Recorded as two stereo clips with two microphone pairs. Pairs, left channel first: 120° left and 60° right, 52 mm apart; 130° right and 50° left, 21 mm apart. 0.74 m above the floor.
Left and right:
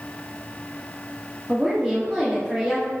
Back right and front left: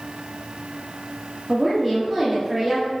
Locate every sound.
1.5 s a woman speaking: 5° right, 0.9 m